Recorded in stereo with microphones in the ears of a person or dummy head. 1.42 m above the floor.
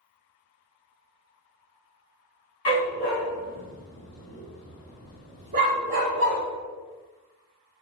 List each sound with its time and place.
2.6 s a dog barking: 35° left (ahead or behind), 1.6 m; by 6.4 s 50° right (ahead or behind), 1.3 m